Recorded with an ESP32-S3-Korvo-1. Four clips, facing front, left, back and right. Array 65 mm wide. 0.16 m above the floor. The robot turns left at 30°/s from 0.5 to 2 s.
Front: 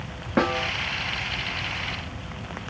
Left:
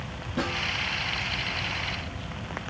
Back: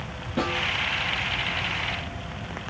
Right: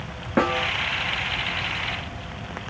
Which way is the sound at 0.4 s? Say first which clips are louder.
Right 8 dB, front 4 dB; 55° right.